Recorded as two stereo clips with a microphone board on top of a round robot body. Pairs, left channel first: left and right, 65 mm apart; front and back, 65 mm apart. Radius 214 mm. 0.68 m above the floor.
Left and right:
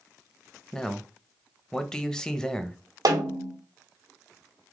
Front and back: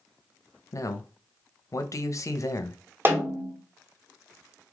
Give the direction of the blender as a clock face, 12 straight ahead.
I don't hear a blender.